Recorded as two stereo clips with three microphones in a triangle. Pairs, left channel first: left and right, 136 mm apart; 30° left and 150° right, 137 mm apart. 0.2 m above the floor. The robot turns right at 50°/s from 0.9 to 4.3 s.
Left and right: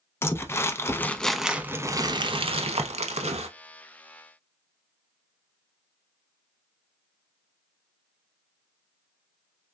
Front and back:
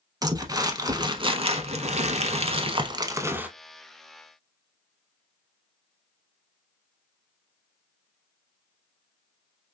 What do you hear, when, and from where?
0.2 s crumpling: 160° left, 0.5 m; by 3.5 s 75° right, 0.5 m